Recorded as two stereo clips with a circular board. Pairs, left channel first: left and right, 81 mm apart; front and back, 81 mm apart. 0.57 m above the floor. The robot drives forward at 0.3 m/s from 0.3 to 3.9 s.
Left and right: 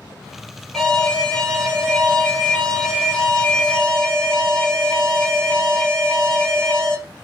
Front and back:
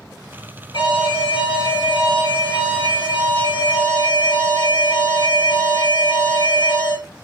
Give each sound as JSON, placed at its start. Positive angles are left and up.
{"t": 0.7, "sound": "an alarm", "azimuth_deg": 10, "distance_m": 4.5}